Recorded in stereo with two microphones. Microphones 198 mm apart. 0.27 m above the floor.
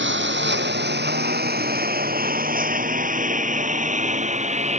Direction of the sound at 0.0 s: 70° right (ahead or behind).